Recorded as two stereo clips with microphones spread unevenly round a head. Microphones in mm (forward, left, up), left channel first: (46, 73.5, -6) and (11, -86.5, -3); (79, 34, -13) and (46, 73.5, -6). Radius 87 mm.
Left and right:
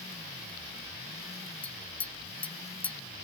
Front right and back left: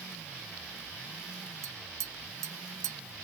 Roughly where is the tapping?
Behind.